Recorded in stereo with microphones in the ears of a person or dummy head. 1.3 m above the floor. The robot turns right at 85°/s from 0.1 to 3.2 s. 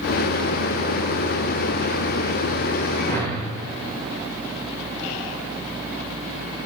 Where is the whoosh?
30° left (ahead or behind), 1.0 m; by 3.5 s 15° left (ahead or behind), 1.0 m.